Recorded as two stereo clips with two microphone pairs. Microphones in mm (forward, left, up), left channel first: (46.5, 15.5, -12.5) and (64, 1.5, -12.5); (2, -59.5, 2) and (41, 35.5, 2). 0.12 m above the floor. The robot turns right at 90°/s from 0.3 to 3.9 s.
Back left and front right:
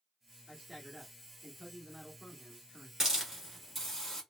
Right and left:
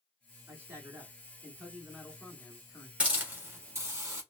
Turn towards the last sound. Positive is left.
turn(degrees=85)